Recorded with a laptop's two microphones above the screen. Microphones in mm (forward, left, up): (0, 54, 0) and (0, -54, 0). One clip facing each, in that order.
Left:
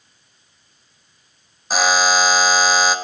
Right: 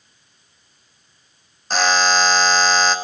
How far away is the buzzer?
About 0.5 m.